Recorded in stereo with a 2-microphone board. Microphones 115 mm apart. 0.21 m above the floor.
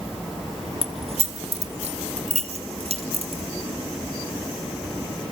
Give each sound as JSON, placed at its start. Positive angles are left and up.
{"t": 0.8, "sound": "keys jangling", "side_deg": -60, "distance_m": 1.7}